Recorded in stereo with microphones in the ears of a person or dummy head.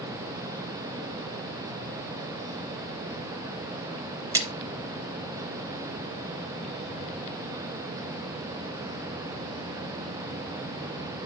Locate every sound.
4.3 s a splash: 15° right (ahead or behind), 1.0 m